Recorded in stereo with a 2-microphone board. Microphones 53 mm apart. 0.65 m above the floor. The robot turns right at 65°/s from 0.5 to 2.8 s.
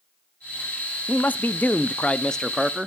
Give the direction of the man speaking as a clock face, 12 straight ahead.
9 o'clock.